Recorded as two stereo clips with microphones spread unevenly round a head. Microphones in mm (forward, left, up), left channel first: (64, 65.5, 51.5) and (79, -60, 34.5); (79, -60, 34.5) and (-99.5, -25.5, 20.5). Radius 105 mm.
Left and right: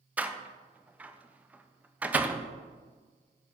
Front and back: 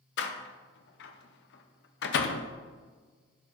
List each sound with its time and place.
0.2 s a door slam: straight ahead, 0.5 m